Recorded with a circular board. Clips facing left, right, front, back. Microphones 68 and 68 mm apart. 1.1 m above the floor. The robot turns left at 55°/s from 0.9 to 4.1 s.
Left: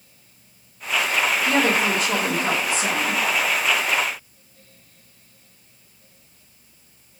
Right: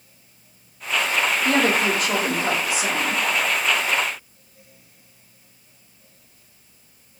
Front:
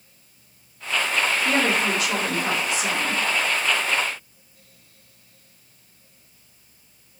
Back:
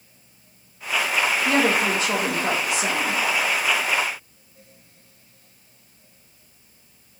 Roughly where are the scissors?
I don't hear scissors.